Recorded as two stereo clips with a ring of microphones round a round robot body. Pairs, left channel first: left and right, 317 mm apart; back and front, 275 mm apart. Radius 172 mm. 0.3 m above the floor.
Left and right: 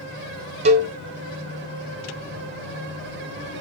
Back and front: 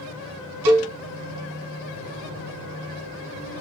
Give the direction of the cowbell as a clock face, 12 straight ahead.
1 o'clock.